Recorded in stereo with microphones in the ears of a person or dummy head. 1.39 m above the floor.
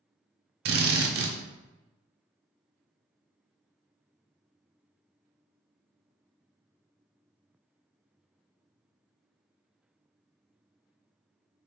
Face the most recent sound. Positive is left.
turn(degrees=-55)  # may be behind; listen again after turning